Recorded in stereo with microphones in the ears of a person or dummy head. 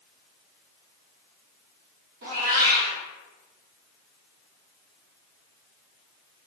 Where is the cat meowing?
50° right (ahead or behind), 0.7 m.